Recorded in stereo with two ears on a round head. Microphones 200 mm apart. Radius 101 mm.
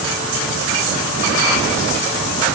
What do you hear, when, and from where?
Only background noise.